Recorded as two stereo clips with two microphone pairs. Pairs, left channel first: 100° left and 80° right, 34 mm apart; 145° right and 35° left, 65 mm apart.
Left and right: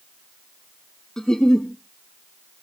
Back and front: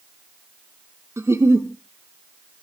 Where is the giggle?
35° left, 1.5 m.